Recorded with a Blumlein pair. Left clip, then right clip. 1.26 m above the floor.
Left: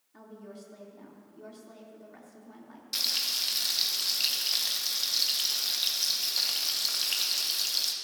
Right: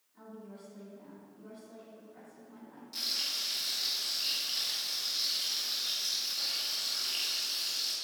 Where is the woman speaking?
55° left, 3 m.